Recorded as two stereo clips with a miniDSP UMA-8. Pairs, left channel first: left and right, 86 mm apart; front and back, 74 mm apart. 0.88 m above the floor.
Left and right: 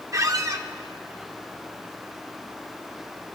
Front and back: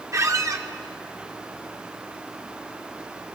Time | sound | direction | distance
0.1 | a squeak | 135° right | 0.8 m